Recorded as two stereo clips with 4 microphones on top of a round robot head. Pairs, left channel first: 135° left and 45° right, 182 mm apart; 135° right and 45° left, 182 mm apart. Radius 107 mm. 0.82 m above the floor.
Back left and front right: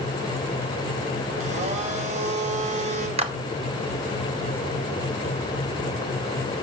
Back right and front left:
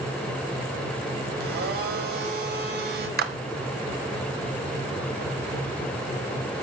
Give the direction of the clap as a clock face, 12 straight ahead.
12 o'clock.